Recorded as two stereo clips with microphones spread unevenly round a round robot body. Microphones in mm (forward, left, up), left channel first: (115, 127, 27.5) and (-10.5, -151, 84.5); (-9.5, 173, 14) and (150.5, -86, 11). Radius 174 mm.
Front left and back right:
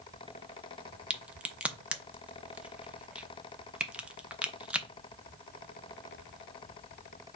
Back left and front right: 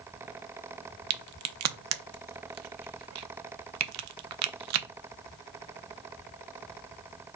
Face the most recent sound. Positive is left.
turn(degrees=-25)